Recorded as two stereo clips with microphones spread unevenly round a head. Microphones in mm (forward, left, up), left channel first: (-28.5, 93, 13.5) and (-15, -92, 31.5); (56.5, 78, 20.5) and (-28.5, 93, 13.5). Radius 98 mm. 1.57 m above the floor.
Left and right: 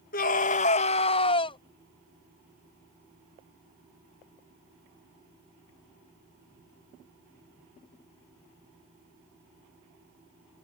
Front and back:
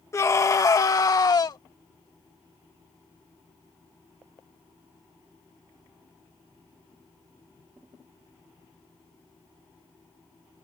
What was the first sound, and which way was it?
A scream, 45° left.